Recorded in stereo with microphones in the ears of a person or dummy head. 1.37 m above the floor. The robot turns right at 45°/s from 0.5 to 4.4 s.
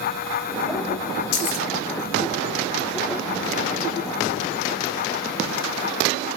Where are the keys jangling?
75° left (ahead or behind), 1.2 m.